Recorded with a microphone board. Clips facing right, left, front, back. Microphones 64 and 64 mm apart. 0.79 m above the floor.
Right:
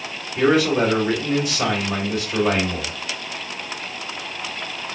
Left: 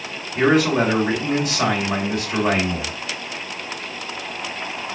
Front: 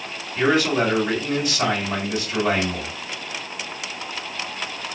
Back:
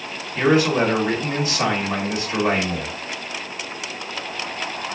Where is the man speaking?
120° left, 1.9 m.